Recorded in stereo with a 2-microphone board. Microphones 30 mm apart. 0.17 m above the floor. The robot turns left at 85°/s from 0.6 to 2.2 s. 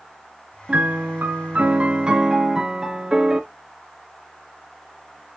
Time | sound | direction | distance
0.7 | a piano | 35° right | 0.8 m